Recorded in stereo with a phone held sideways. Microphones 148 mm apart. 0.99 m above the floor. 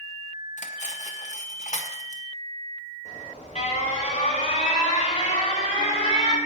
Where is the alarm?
50° left (ahead or behind), 4.5 m.